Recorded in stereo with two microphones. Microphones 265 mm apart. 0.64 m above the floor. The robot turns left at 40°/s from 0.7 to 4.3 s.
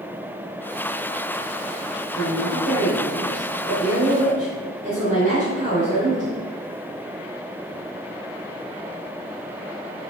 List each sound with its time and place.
2.1 s a woman speaking: 55° left, 3 m; by 6.4 s 30° right, 3 m